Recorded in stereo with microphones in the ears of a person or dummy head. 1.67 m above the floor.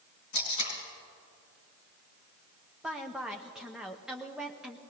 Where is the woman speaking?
Centre (ahead or behind), 0.7 m.